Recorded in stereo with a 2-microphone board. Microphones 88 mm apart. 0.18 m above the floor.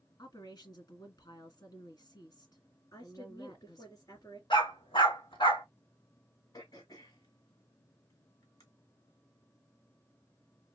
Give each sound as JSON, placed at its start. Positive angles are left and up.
{"t": 0.2, "sound": "a woman speaking", "side_deg": 50, "distance_m": 1.9}
{"t": 2.9, "sound": "a woman speaking", "side_deg": 45, "distance_m": 3.0}
{"t": 4.5, "sound": "a dog barking", "side_deg": 65, "distance_m": 4.0}
{"t": 6.5, "sound": "throat clearing", "side_deg": 50, "distance_m": 2.0}